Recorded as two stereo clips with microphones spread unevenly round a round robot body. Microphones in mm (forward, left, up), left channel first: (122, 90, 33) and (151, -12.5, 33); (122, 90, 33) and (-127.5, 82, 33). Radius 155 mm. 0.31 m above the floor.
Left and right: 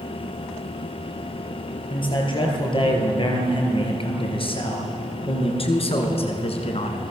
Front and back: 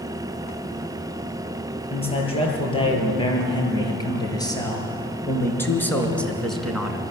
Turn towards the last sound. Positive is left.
turn(degrees=95)